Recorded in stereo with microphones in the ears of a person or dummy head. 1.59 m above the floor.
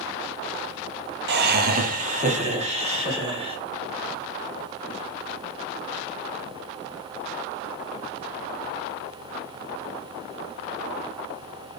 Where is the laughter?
60° right (ahead or behind), 0.6 m; by 3.6 s 25° right (ahead or behind), 2.0 m.